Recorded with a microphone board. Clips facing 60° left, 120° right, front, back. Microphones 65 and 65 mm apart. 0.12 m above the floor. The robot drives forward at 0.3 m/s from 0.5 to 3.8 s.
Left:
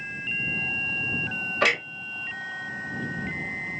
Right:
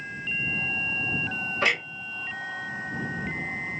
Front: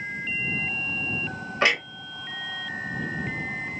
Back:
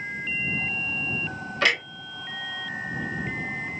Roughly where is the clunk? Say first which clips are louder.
Left 2 dB, front 1 dB; ahead left.